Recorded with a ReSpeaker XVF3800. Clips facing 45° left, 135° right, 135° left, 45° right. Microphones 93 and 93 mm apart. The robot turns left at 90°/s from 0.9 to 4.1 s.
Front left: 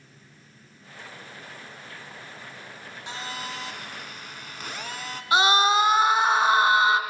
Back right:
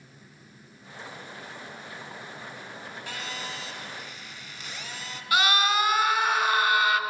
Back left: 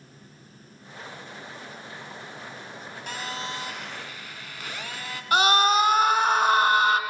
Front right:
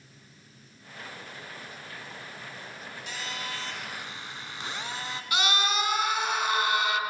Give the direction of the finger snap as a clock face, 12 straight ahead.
I don't hear a finger snap.